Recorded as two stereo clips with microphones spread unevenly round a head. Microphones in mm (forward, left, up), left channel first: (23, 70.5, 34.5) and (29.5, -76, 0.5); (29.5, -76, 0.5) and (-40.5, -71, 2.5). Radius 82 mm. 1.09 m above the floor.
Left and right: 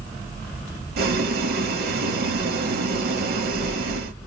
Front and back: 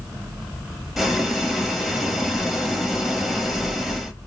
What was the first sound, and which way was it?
Boiling, 95° right.